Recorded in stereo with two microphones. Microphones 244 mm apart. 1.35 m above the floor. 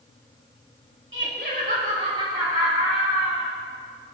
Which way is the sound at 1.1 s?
50° right (ahead or behind).